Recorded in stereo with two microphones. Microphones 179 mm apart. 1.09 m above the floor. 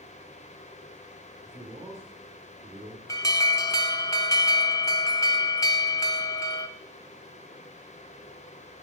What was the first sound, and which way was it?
A man speaking, 30° right (ahead or behind).